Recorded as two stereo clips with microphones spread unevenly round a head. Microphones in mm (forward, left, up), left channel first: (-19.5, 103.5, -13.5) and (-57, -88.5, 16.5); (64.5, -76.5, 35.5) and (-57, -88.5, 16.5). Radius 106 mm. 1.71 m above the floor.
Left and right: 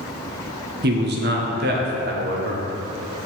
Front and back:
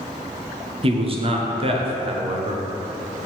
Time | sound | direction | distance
0.8 | a man speaking | 130° right | 1.0 m